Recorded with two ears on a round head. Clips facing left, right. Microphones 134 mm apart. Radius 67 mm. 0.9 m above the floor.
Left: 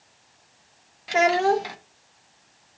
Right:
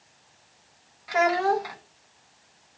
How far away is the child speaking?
About 0.8 m.